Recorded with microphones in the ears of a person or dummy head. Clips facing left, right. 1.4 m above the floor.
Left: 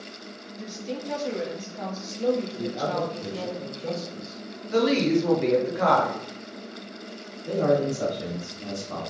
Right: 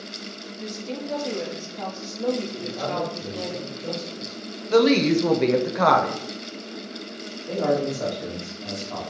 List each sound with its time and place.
0.6 s a woman speaking: 5° left (ahead or behind), 0.9 m
2.5 s a man speaking: 30° left (ahead or behind), 1.7 m
4.7 s a woman speaking: 85° right, 0.6 m
7.5 s a man speaking: 50° left (ahead or behind), 1.7 m